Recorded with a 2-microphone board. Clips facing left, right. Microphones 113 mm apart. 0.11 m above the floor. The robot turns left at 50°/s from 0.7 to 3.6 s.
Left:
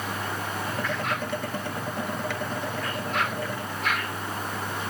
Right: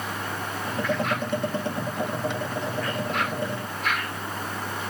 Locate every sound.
Only background noise.